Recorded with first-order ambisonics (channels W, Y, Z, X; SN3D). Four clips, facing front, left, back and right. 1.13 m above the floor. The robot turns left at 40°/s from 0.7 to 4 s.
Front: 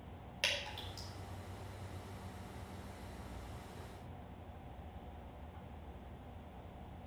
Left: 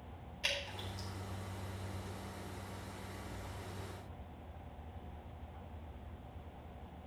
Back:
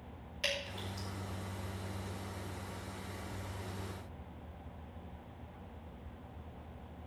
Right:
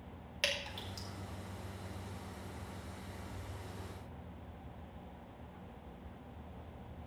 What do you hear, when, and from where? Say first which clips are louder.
0.4 s dripping: right 2 dB, back 1 dB; 65° right, 4.5 m; by 1.1 s 80° right, 4.5 m